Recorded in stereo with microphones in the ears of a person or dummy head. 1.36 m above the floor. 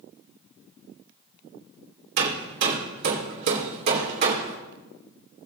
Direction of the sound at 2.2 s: 55° right (ahead or behind).